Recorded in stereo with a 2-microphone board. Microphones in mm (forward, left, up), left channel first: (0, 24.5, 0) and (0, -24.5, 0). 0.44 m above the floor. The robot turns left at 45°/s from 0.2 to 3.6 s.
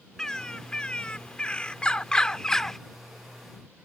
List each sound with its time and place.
0.2 s a bird: 15° left (ahead or behind); by 2.8 s 10° left (ahead or behind)